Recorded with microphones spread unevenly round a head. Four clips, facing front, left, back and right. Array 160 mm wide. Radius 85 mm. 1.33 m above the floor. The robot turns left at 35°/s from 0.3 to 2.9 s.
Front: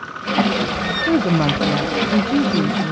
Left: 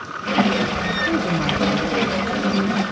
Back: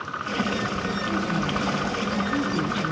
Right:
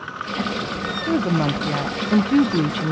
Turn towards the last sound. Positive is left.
turn(degrees=-65)